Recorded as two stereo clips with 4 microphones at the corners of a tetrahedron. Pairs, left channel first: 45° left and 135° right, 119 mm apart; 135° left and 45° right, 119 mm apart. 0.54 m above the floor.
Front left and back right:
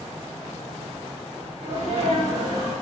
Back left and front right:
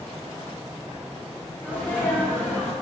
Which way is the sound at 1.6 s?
160° right.